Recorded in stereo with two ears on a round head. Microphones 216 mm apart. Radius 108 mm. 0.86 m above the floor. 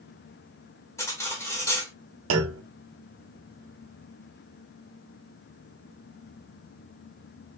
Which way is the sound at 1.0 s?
15° left (ahead or behind).